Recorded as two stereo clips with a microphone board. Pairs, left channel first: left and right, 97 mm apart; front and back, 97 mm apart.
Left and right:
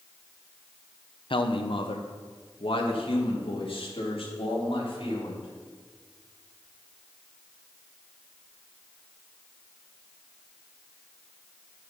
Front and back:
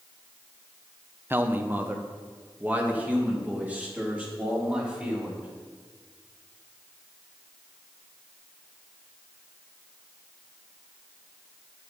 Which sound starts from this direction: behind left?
A man speaking, at 1.3 s.